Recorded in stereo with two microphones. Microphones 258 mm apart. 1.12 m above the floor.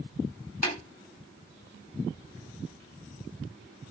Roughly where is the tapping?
Left.